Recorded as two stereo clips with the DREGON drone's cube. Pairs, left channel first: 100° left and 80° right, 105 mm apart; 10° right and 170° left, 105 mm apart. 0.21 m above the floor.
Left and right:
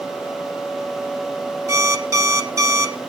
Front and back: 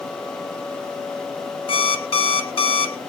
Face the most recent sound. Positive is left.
turn(degrees=-25)